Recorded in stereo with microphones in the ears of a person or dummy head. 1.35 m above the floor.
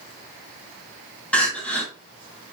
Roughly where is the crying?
Centre.